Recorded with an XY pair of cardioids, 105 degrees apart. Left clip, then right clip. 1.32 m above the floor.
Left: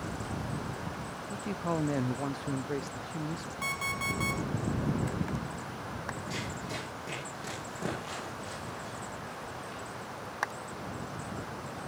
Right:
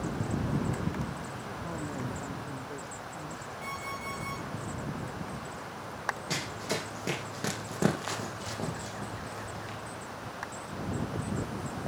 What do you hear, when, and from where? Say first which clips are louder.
1.3 s a man speaking: left 5 dB; 65° left, 0.5 m
3.6 s an alarm clock: left 6 dB; 70° left, 5 m
6.3 s running footsteps: right 4 dB; 65° right, 4 m